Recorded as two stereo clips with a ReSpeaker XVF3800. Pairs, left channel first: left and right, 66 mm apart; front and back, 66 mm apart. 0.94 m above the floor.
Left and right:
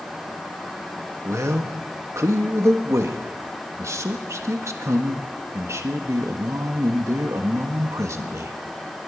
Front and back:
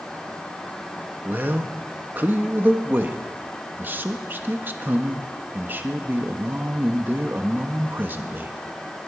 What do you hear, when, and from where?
1.2 s a man speaking: 125° right, 1.4 m